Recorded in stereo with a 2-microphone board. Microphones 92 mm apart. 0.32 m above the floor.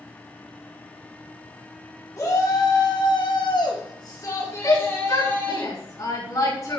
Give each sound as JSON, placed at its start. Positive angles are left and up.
{"t": 2.2, "sound": "a shout", "side_deg": 35, "distance_m": 2.5}
{"t": 4.6, "sound": "a shout", "side_deg": 40, "distance_m": 3.5}